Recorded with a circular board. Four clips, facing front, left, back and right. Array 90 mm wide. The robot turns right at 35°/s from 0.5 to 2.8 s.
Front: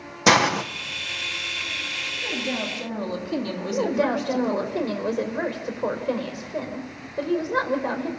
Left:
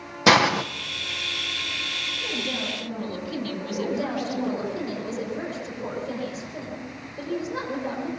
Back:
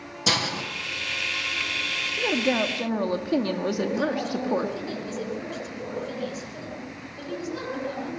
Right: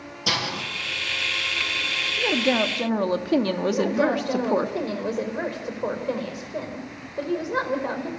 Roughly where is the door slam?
I don't hear a door slam.